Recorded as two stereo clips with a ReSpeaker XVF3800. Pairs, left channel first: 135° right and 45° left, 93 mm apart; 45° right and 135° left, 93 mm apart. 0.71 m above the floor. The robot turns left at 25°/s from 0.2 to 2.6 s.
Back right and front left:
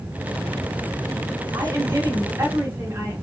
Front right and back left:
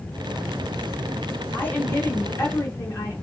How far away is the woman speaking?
About 1.0 m.